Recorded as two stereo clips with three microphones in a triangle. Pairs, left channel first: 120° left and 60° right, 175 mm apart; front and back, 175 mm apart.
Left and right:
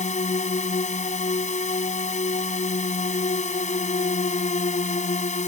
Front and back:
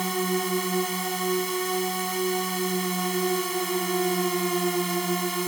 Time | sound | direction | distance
0.0 | a drone | 90° left | ?